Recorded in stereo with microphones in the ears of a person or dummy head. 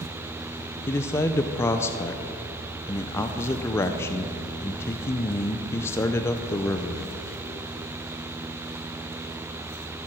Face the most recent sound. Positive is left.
turn(degrees=15)  # may be behind; listen again after turning